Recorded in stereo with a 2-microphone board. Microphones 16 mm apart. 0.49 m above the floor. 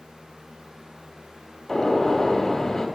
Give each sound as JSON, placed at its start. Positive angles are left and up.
{"t": 1.7, "sound": "a gunshot", "side_deg": 35, "distance_m": 1.4}